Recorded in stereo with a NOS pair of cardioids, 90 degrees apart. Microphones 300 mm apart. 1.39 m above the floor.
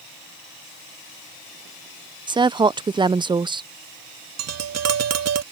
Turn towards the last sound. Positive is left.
turn(degrees=-65)